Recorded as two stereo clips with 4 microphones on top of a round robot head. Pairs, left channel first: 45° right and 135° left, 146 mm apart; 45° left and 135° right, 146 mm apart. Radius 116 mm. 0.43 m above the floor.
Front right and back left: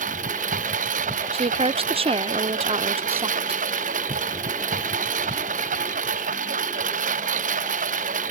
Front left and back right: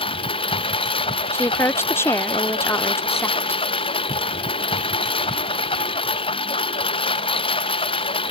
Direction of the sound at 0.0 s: 100° left.